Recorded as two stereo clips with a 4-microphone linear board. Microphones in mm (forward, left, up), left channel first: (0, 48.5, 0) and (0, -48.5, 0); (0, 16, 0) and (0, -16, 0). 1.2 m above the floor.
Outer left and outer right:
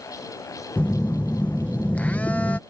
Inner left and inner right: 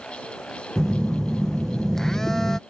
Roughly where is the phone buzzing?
Centre.